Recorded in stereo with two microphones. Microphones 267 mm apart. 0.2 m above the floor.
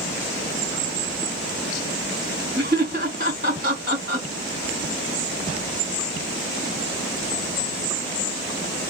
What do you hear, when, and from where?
2.6 s laughter: 35° right (ahead or behind), 2.0 m